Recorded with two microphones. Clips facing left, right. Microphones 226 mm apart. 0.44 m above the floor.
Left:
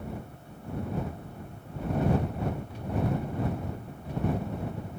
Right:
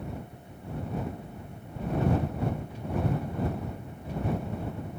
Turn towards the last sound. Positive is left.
No sound to turn to.